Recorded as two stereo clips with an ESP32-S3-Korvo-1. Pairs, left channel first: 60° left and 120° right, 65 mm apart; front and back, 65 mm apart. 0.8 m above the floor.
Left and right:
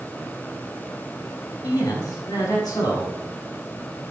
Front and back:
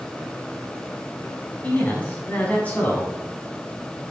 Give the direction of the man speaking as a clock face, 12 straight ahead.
10 o'clock.